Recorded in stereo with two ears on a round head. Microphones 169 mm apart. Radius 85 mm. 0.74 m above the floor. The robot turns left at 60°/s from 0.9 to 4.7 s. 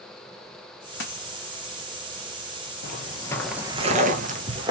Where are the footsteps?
50° left (ahead or behind), 1.2 m; by 4.7 s 25° right (ahead or behind), 1.1 m.